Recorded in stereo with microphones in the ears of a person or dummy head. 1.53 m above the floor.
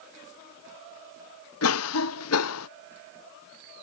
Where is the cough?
80° left.